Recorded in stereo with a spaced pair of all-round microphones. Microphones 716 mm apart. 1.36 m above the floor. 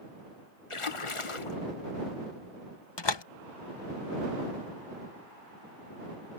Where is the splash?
45° left (ahead or behind).